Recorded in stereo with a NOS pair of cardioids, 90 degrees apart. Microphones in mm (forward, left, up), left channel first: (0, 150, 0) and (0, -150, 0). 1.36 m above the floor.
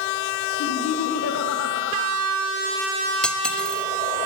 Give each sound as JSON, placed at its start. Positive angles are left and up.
{"t": 0.6, "sound": "laughter", "azimuth_deg": 60, "distance_m": 6.0}
{"t": 3.2, "sound": "cutlery clinking", "azimuth_deg": 5, "distance_m": 2.0}